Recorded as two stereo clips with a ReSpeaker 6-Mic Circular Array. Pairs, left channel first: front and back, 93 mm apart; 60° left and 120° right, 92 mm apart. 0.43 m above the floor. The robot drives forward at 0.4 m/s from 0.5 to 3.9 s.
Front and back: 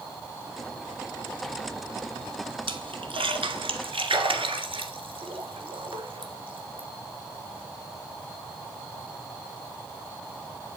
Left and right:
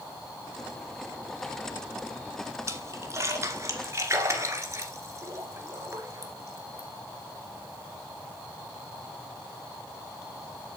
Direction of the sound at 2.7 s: 175° right.